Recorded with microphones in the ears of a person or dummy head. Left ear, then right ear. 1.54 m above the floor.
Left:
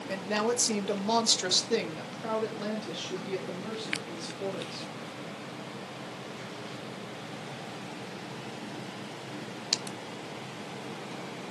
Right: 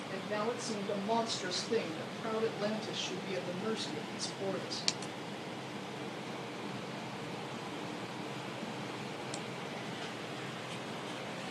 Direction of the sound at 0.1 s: 80° left.